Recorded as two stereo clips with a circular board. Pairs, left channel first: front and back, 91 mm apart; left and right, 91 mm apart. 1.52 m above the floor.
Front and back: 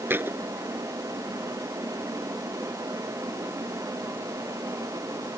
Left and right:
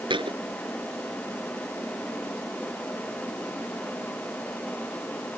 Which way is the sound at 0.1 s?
115° right.